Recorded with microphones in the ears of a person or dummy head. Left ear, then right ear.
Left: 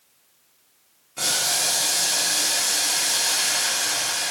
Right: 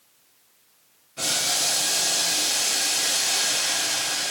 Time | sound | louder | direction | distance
1.2 | boiling | left 1 dB | 25° left (ahead or behind) | 0.9 m